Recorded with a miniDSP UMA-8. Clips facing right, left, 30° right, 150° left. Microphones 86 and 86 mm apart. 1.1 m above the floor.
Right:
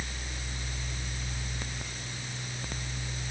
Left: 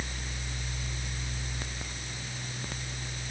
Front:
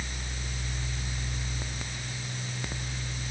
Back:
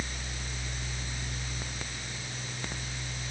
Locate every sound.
Only background noise.